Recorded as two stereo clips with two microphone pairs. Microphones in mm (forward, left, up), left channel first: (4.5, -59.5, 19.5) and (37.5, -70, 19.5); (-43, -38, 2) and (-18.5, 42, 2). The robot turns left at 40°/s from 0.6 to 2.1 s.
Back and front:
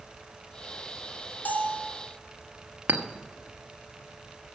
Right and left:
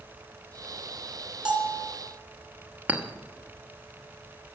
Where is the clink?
5° left, 0.9 m.